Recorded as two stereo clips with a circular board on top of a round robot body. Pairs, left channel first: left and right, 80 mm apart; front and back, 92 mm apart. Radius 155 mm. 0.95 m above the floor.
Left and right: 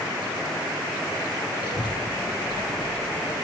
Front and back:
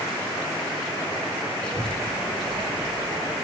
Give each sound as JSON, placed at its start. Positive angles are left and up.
{"t": 1.6, "sound": "a child speaking", "azimuth_deg": 80, "distance_m": 5.5}